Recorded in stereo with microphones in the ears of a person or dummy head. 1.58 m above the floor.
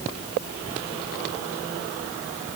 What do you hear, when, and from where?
Only background noise.